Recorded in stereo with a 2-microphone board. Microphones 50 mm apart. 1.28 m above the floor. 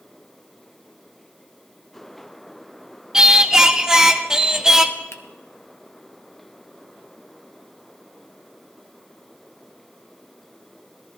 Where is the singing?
10° right (ahead or behind), 0.6 m.